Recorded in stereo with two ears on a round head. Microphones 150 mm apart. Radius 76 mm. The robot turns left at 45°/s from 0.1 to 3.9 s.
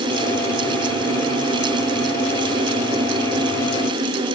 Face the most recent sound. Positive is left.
No sound to turn to.